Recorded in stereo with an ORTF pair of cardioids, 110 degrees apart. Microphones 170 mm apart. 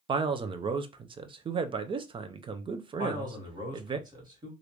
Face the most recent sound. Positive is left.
turn(degrees=-25)